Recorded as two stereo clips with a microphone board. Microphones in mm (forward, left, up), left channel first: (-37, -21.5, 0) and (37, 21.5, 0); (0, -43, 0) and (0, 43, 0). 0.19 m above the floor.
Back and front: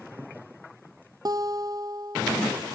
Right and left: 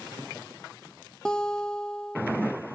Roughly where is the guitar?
Ahead.